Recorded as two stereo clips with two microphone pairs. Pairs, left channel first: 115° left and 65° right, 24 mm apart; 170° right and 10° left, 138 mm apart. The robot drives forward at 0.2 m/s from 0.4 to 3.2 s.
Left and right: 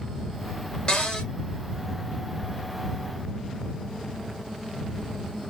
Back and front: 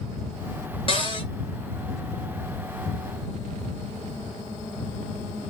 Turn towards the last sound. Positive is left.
turn(degrees=160)